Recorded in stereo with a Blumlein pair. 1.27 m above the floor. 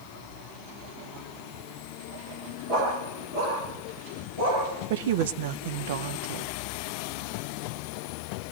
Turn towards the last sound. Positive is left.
turn(degrees=-55)